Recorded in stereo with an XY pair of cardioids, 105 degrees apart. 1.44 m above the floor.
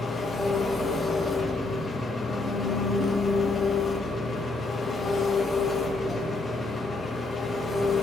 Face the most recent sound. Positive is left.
turn(degrees=30)